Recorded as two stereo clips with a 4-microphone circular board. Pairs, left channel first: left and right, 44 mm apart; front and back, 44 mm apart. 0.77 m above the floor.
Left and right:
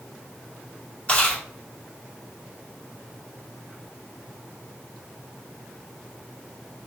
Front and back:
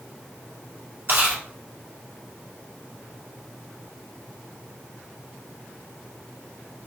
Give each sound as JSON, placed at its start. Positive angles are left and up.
{"t": 1.1, "sound": "chewing", "azimuth_deg": 150, "distance_m": 2.0}